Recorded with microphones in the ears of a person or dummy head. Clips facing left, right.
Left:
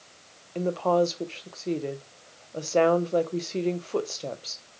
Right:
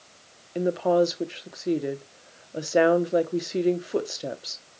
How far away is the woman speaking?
About 0.7 m.